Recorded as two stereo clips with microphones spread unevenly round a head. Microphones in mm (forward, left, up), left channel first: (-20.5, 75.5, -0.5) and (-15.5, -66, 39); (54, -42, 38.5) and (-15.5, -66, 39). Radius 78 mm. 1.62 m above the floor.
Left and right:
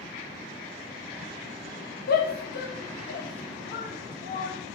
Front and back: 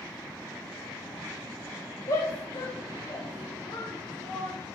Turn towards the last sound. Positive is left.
turn(degrees=75)